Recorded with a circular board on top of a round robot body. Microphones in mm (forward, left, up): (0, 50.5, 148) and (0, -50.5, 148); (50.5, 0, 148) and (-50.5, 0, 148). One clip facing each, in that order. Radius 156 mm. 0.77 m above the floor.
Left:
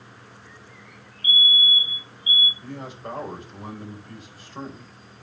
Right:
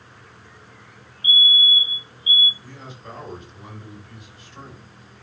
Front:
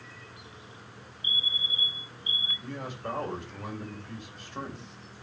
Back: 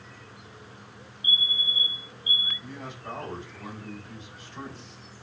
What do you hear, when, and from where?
1.2 s a fire alarm: 30° right, 3 m
2.6 s a man speaking: 40° left, 4.5 m